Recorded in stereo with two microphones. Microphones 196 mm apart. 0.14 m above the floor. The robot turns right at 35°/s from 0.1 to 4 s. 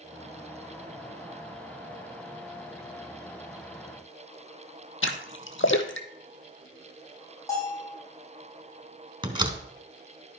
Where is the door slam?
25° right (ahead or behind), 1.2 m.